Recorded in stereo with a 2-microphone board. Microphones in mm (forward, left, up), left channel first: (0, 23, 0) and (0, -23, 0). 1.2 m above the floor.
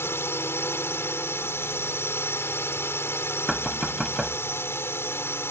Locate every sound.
0.0 s a drone: 70° left (ahead or behind)
3.5 s knocking: centre (ahead or behind)